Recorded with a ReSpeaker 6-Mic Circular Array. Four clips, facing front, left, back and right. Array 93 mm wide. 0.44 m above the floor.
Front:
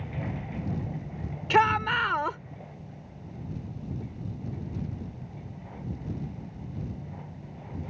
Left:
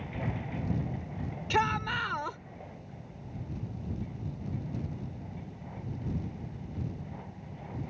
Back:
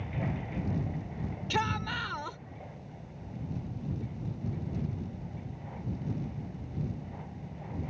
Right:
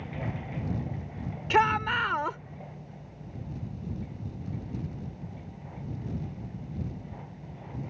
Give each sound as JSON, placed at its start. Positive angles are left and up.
{"t": 1.5, "sound": "a shout", "azimuth_deg": -30}